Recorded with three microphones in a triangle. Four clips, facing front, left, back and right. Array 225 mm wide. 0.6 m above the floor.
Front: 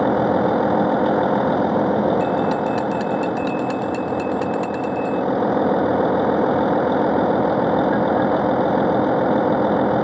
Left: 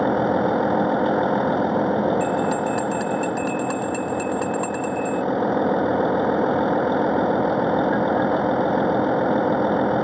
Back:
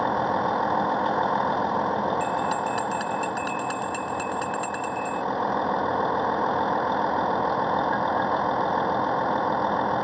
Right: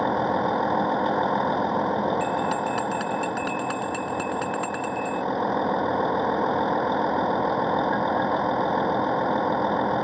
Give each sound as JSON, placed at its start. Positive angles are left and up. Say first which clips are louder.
{"t": 0.0, "sound": "a vehicle", "louder": "left 4 dB, front 6 dB", "azimuth_deg": 25}
{"t": 2.2, "sound": "a bell", "louder": "left 3 dB, front 6 dB", "azimuth_deg": -80}